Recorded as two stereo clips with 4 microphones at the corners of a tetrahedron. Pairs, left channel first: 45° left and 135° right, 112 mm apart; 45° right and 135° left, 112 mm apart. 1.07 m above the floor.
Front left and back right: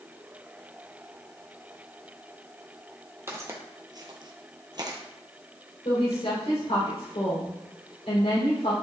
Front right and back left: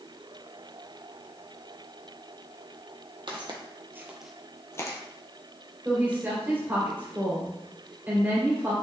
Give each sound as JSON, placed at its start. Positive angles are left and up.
{"t": 3.3, "sound": "footsteps", "azimuth_deg": 165, "distance_m": 1.9}
{"t": 5.8, "sound": "a woman speaking", "azimuth_deg": 65, "distance_m": 3.0}